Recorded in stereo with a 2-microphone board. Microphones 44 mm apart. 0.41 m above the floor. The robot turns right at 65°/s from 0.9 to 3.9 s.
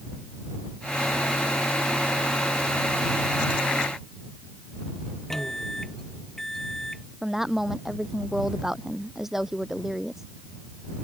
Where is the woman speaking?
10° right (ahead or behind).